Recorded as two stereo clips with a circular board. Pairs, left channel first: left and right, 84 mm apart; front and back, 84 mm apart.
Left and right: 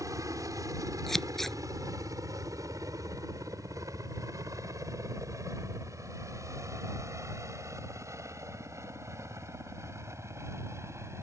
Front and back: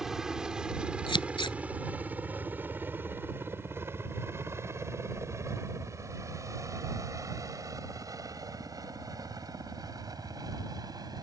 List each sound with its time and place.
0.0 s a helicopter: 100° right; by 11.2 s 145° right
1.1 s scissors: 5° left